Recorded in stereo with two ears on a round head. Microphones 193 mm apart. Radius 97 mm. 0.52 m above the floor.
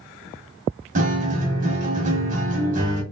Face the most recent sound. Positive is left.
turn(degrees=-35)  # may be behind; listen again after turning